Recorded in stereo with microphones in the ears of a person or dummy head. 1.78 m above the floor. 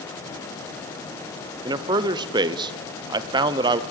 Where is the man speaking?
20° right (ahead or behind), 0.8 m.